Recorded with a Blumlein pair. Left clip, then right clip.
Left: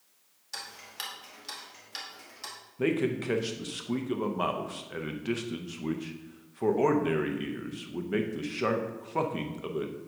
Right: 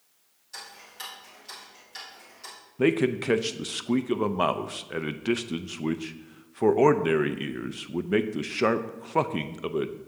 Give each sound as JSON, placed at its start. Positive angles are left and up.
{"t": 0.5, "sound": "ticking", "azimuth_deg": 25, "distance_m": 2.0}
{"t": 2.8, "sound": "a man speaking", "azimuth_deg": -70, "distance_m": 0.5}